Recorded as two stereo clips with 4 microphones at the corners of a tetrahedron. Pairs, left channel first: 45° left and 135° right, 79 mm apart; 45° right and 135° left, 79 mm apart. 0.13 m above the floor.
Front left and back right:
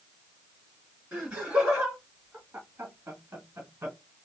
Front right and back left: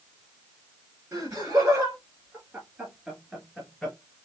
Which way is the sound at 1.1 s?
150° left.